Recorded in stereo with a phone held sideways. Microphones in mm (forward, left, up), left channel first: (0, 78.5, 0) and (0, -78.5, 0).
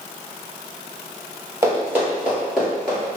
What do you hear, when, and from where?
1.6 s running footsteps: 20° right (ahead or behind), 1.7 m; by 3.2 s 10° left (ahead or behind), 1.4 m